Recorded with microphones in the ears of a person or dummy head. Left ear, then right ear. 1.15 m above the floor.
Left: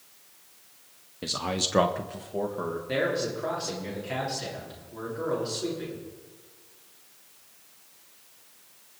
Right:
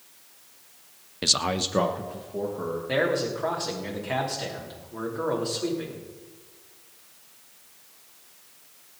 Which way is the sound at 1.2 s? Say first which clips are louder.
Right 5 dB; 40° right (ahead or behind).